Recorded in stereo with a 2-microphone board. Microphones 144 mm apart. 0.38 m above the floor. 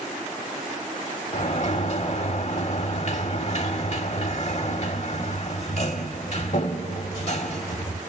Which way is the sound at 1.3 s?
50° left (ahead or behind).